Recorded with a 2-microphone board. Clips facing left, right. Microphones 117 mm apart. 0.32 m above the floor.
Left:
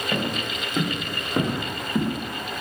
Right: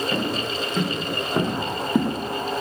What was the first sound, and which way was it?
Footsteps, 10° left (ahead or behind).